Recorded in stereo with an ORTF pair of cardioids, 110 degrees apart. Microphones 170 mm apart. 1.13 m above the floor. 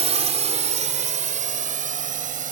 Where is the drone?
35° right; by 2.5 s 50° right.